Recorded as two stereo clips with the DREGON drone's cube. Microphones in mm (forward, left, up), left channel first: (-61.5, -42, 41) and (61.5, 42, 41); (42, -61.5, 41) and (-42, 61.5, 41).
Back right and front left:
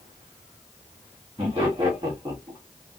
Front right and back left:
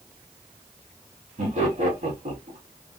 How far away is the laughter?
About 1.9 m.